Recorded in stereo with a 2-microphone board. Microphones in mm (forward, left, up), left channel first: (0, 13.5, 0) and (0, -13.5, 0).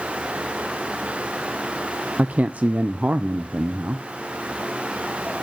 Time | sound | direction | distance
2.2 | a man speaking | 65° right (ahead or behind) | 0.5 m